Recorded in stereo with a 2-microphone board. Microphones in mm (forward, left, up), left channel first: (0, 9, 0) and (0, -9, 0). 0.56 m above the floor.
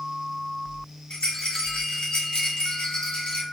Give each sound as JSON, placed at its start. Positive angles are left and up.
{"t": 1.1, "sound": "a rattle", "side_deg": 65, "distance_m": 1.2}